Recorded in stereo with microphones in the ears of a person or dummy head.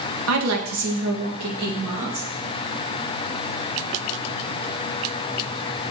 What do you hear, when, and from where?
0.3 s a woman speaking: 70° right (ahead or behind), 1.5 m; by 2.3 s 45° right (ahead or behind), 2 m